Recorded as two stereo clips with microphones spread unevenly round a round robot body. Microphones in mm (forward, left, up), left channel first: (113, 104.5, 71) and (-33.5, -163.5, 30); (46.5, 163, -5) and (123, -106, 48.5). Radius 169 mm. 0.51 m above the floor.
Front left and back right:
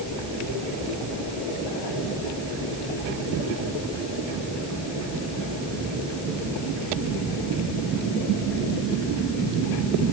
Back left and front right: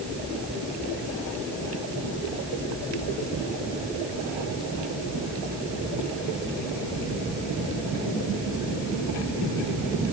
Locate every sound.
Only background noise.